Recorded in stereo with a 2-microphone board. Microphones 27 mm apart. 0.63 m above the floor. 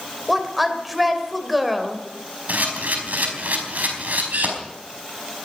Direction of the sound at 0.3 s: 5° right (ahead or behind).